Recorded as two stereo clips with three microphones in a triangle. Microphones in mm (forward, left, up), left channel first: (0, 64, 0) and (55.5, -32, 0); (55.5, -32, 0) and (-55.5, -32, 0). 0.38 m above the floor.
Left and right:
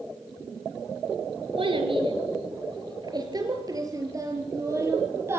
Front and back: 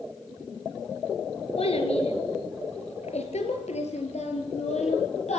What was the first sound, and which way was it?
A child speaking, 25° right.